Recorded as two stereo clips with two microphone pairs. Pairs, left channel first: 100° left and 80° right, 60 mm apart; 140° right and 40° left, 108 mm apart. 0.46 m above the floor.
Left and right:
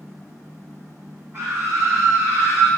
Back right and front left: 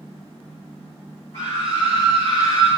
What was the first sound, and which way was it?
A scream, 125° right.